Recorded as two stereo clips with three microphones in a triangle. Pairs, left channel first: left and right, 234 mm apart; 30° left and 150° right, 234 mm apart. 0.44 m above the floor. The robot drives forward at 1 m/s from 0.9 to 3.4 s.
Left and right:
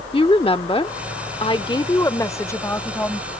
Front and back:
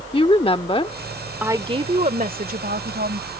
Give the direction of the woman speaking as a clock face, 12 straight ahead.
10 o'clock.